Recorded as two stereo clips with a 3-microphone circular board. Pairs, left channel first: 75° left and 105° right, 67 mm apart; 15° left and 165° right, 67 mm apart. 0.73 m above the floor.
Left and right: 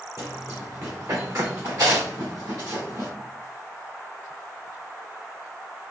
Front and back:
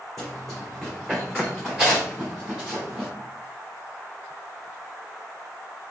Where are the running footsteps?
70° right, 2.0 m; by 3.1 s 80° right, 3.5 m.